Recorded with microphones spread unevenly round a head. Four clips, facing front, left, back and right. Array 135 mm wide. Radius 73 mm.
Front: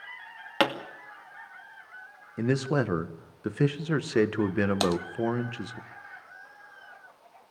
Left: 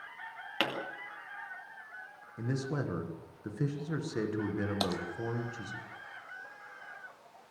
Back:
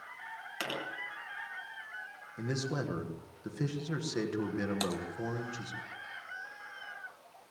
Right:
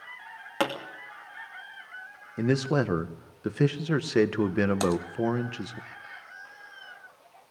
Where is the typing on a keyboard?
5° right, 0.8 m.